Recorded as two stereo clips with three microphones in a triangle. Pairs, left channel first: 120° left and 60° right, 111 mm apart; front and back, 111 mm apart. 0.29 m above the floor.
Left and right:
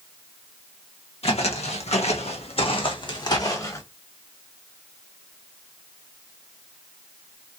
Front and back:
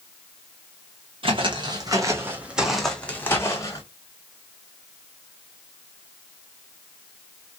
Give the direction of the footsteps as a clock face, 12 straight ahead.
7 o'clock.